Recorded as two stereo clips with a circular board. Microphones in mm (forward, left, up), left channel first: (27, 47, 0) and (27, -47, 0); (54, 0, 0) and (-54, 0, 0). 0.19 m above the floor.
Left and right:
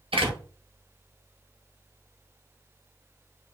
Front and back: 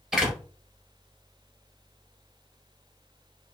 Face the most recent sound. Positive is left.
turn(degrees=-95)